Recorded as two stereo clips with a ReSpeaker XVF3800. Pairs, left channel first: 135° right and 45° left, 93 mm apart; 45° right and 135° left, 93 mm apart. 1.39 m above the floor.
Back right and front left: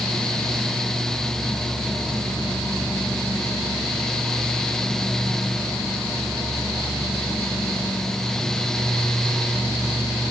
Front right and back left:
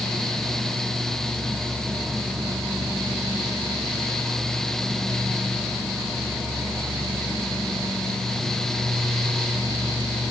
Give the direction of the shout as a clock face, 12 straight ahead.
No shout in this recording.